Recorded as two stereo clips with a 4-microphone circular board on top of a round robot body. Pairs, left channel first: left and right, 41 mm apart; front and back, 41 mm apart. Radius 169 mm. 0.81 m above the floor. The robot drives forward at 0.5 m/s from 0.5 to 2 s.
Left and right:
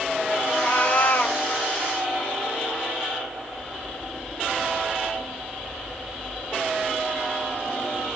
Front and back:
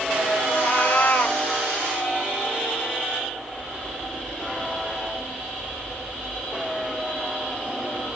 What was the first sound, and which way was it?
A cat meowing, 40° left.